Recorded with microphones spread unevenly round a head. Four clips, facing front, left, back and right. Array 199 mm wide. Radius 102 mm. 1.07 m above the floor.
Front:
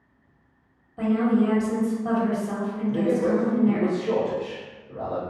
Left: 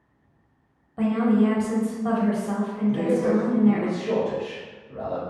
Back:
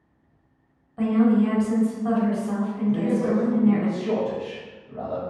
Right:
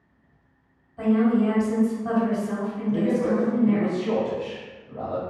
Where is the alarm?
I don't hear an alarm.